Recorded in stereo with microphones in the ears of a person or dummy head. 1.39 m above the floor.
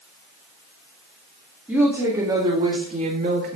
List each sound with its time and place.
1.7 s a woman speaking: 5° right (ahead or behind), 1.9 m; by 3.6 s 60° right (ahead or behind), 1.7 m